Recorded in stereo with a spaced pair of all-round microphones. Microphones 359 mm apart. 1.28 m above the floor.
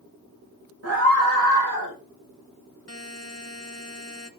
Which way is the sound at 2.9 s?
45° left (ahead or behind).